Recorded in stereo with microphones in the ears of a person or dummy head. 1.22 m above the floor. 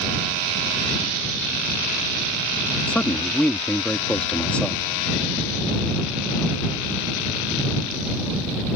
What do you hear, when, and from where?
2.9 s a man speaking: 10° left (ahead or behind)